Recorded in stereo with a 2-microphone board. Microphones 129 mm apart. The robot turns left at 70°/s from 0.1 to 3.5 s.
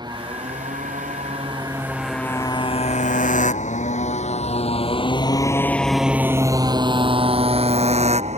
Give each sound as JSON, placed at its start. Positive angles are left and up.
{"t": 0.0, "sound": "a motorcycle", "side_deg": -35}